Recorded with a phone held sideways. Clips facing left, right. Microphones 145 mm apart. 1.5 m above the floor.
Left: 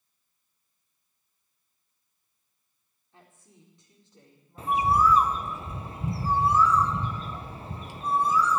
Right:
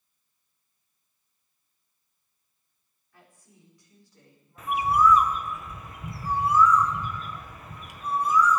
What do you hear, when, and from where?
3.1 s a woman speaking: 25° left (ahead or behind), 4 m; by 5.6 s 20° left (ahead or behind), 6 m
4.6 s a bird: 30° left (ahead or behind), 0.7 m